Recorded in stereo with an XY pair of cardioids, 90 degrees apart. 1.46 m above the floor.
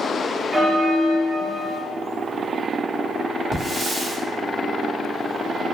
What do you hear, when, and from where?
0.5 s a bell: 30° right, 0.7 m
3.5 s a hiss: 45° right, 1.1 m